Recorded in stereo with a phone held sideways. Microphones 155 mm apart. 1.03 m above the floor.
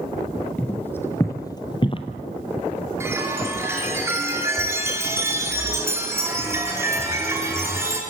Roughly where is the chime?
Centre.